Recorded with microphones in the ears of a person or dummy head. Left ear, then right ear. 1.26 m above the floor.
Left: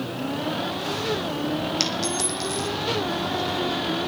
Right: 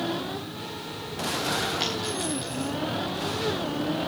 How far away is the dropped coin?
About 5 m.